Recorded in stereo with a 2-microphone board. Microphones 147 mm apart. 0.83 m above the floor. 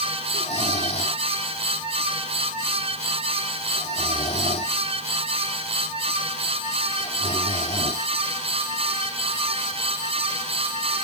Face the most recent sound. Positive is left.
turn(degrees=50)  # may be behind; listen again after turning